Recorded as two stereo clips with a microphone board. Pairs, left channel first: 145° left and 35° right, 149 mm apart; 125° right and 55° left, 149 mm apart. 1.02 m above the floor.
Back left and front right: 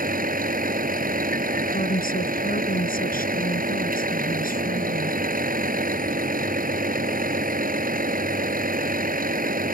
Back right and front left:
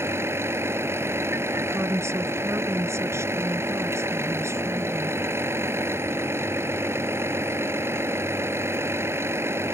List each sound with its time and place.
0.0 s a vehicle: 20° right
1.6 s a woman speaking: 130° left